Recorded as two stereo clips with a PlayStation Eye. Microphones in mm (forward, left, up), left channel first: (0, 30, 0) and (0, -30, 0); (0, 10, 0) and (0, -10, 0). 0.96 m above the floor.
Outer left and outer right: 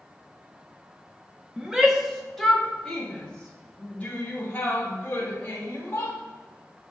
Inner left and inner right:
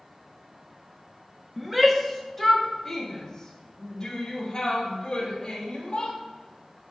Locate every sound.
1.6 s a shout: 10° right (ahead or behind), 1.4 m; by 6.2 s 30° left (ahead or behind), 3.5 m